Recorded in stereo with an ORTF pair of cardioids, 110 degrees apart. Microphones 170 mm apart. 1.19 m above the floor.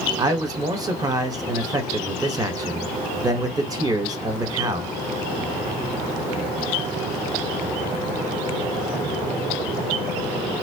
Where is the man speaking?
20° right, 1.3 m.